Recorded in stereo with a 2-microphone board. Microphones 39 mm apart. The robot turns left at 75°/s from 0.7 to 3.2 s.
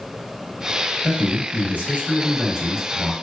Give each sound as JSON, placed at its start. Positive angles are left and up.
{"t": 1.0, "sound": "a man speaking", "azimuth_deg": -40, "distance_m": 1.2}